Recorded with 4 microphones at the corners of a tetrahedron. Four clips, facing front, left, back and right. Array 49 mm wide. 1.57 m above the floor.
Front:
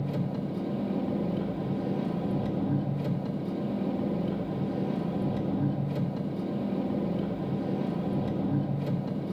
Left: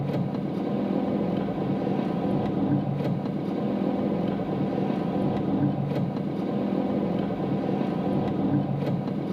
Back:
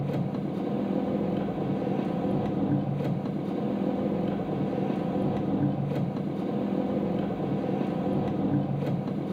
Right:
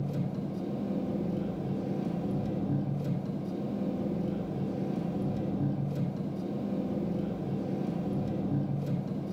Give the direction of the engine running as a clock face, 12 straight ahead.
8 o'clock.